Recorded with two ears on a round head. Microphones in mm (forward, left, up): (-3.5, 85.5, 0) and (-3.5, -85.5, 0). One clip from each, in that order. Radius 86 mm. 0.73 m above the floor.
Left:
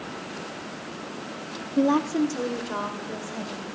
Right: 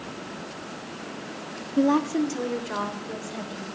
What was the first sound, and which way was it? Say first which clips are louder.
A woman speaking: even; 5° left (ahead or behind).